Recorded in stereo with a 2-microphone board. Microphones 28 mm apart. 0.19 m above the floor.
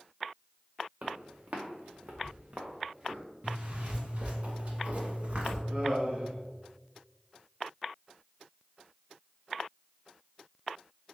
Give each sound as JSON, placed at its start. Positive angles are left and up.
{"t": 1.0, "sound": "footsteps", "side_deg": -60, "distance_m": 1.3}
{"t": 3.4, "sound": "a zipper", "side_deg": -45, "distance_m": 1.2}
{"t": 5.7, "sound": "laughter", "side_deg": -50, "distance_m": 1.7}